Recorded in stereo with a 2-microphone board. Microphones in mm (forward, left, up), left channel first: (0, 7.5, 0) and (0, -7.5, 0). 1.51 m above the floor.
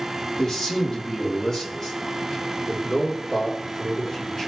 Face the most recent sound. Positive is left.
turn(degrees=15)  # may be behind; listen again after turning